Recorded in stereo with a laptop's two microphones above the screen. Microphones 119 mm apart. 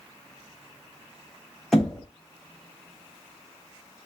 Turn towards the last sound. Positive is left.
turn(degrees=0)  # may be behind; listen again after turning